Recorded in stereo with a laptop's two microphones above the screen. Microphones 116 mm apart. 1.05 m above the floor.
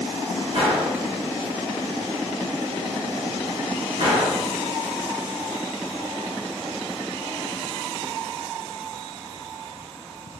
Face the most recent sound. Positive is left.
turn(degrees=-55)  # may be behind; listen again after turning